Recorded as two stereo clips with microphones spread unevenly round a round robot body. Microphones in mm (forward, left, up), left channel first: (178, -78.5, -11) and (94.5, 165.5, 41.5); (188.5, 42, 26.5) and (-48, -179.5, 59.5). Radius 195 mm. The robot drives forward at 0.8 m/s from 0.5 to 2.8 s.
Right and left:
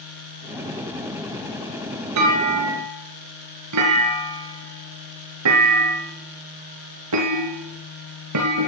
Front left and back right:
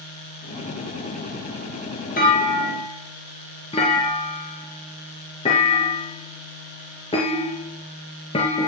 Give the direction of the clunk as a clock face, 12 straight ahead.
8 o'clock.